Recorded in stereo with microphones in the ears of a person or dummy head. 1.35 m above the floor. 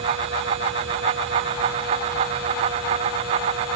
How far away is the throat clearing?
No throat clearing in this recording.